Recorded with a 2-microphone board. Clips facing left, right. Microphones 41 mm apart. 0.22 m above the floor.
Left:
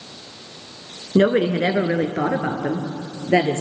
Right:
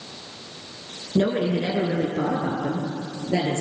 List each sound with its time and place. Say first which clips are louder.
1.1 s a woman speaking: left 5 dB; 55° left (ahead or behind), 2.5 m